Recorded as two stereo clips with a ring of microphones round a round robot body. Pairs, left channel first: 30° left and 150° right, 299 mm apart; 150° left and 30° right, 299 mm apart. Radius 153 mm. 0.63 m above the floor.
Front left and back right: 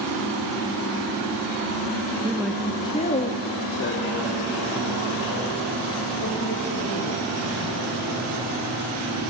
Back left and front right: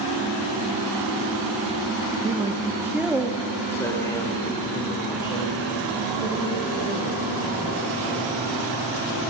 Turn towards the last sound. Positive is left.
turn(degrees=75)